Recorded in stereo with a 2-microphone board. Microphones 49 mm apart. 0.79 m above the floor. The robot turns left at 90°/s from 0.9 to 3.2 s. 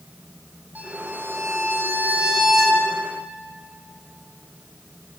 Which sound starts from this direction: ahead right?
A violin, at 0.8 s.